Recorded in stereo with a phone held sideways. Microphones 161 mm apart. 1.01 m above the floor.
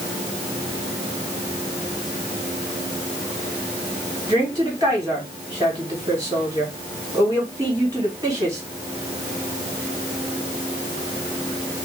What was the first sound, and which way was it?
A woman speaking, 20° right (ahead or behind).